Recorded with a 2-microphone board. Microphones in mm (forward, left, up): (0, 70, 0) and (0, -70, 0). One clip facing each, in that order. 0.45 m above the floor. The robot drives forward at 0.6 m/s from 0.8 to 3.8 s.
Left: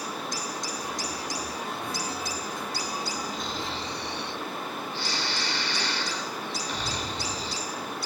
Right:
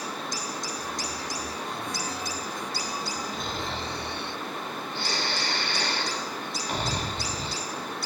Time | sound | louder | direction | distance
3.3 | snoring | even | 55° right (ahead or behind) | 1.1 m